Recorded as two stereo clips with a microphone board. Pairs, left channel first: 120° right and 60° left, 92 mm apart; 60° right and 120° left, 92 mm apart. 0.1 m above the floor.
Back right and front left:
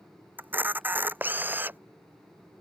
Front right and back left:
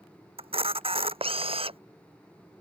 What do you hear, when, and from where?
0.4 s a camera shutter: 130° left